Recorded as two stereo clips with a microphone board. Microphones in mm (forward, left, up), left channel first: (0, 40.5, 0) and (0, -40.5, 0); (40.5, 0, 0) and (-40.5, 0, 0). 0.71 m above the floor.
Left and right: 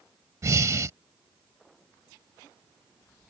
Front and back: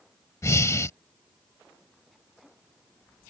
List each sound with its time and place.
0.4 s breathing: 45° right